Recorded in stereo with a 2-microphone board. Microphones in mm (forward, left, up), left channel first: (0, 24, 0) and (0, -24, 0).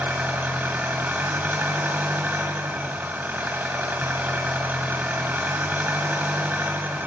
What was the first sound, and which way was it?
An engine running, 40° right (ahead or behind).